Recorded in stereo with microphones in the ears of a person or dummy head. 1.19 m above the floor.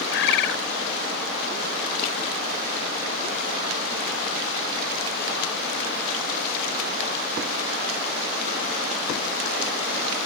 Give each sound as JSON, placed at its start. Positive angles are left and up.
{"t": 0.1, "sound": "a bird", "side_deg": 70}